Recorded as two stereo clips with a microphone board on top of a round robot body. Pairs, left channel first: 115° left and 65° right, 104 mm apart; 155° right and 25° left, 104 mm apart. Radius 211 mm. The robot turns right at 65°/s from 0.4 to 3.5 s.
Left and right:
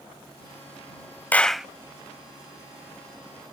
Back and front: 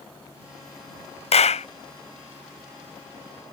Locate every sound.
1.3 s a clap: 175° right; by 1.7 s 150° right